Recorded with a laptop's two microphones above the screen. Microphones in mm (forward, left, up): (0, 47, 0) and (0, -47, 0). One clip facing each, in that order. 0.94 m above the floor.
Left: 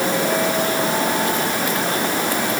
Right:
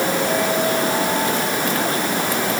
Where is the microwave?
I don't hear a microwave.